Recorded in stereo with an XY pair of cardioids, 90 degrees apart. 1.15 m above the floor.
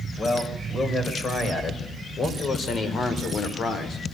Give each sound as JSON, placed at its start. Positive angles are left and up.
{"t": 0.2, "sound": "a man speaking", "azimuth_deg": 45, "distance_m": 5.0}